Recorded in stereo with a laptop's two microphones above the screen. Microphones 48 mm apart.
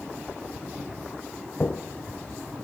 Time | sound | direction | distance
1.6 | footsteps | 40° left (ahead or behind) | 1.6 m